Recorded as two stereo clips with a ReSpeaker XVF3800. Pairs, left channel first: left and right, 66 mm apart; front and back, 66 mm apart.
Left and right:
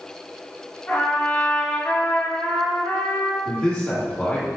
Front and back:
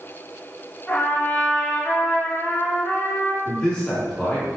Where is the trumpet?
60° left, 1.4 m.